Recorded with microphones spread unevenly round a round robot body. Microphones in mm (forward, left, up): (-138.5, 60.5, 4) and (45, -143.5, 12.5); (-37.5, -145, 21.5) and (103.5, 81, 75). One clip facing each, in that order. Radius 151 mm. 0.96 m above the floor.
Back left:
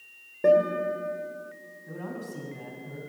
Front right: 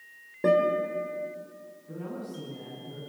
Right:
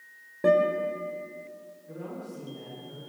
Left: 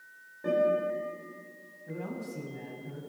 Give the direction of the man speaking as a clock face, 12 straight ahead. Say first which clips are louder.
Even, left 1 dB; 9 o'clock.